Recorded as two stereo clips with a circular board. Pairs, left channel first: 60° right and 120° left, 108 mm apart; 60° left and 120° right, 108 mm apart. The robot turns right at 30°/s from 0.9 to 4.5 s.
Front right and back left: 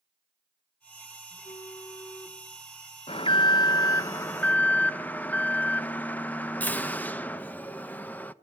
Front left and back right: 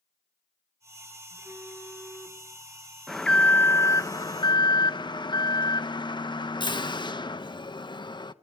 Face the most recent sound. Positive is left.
turn(degrees=15)